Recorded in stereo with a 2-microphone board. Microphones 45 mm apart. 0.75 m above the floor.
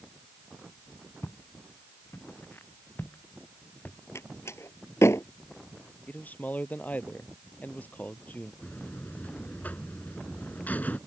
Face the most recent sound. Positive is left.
turn(degrees=35)  # may be behind; listen again after turning